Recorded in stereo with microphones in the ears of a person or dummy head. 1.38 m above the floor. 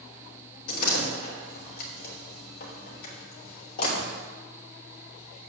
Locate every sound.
0.7 s a door slam: 55° left (ahead or behind), 2.5 m